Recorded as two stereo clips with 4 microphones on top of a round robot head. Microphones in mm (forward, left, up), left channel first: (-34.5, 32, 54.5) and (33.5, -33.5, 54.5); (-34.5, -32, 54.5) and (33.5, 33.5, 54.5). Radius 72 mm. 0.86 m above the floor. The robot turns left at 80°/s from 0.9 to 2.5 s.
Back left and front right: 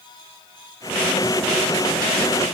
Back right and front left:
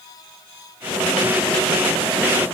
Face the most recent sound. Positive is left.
No sound to turn to.